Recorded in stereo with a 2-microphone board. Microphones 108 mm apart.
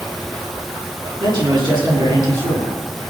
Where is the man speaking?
45° right (ahead or behind), 7 m.